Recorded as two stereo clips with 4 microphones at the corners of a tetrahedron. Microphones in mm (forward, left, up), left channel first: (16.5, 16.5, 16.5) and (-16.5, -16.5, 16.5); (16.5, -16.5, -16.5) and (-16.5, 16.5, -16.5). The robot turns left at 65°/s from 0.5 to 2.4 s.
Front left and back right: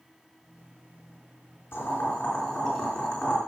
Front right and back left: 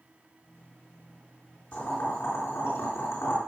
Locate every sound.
1.7 s boiling: 5° left, 4 m; by 3.4 s 40° right, 4 m